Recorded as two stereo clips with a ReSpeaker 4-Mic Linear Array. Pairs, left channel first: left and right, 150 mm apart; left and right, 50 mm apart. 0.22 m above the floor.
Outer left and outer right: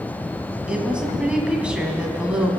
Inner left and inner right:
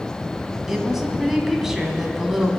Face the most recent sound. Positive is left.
turn(degrees=-5)  # may be behind; listen again after turning